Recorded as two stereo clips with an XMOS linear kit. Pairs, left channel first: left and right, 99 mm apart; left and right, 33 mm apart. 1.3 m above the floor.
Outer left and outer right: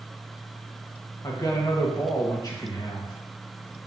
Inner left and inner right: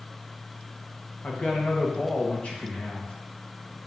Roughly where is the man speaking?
Left.